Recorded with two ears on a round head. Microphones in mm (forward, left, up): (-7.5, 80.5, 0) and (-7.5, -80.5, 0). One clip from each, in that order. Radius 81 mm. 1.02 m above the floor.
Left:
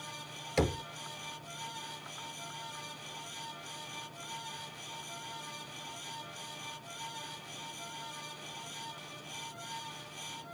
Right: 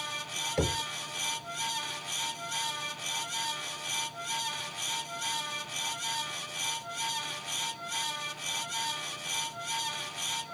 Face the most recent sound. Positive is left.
turn(degrees=45)  # may be behind; listen again after turning